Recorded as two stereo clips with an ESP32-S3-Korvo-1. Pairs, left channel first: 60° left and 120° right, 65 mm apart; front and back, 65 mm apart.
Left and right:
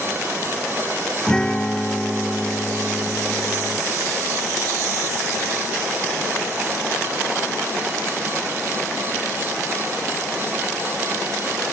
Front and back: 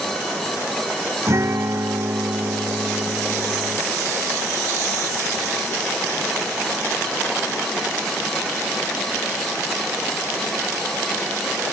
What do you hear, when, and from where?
1.3 s a guitar: 140° left